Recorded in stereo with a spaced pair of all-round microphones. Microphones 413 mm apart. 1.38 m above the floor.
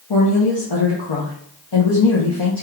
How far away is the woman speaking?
About 0.8 m.